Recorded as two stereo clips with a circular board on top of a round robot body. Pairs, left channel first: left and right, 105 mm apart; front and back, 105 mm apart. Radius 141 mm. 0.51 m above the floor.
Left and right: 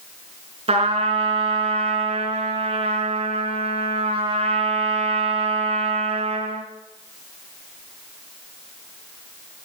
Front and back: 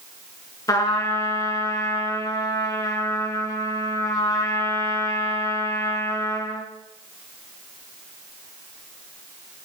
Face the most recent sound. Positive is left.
turn(degrees=-60)